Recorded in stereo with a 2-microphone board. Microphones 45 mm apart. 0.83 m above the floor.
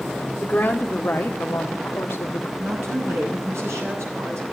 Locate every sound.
0.4 s a woman speaking: 30° left (ahead or behind), 1.4 m; by 2.5 s 75° left (ahead or behind), 1.6 m
2.6 s a woman speaking: 80° right, 7.5 m